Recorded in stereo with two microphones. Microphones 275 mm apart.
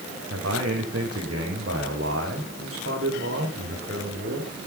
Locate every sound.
0.3 s a man speaking: 60° right (ahead or behind), 7 m; by 4.5 s 45° right (ahead or behind), 7.5 m